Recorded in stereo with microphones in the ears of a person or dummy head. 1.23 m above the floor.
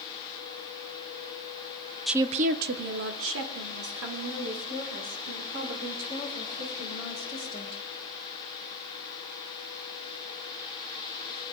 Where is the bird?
No bird in this recording.